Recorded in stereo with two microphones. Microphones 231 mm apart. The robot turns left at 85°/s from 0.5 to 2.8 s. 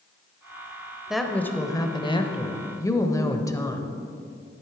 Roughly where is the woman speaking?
Centre.